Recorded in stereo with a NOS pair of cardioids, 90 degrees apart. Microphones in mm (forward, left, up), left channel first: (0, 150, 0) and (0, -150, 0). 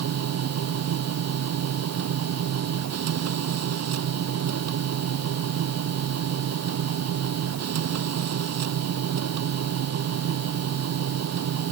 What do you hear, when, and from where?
0.0 s a machine running: 60° right